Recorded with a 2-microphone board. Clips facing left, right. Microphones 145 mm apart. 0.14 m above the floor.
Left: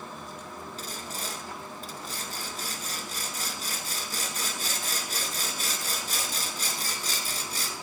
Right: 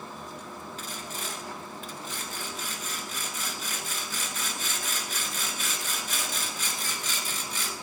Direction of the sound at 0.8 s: 40° left (ahead or behind).